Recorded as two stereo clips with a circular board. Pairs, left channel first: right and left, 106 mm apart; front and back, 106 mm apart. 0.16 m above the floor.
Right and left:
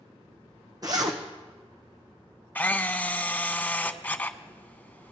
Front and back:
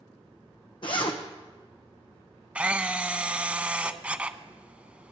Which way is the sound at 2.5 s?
125° right.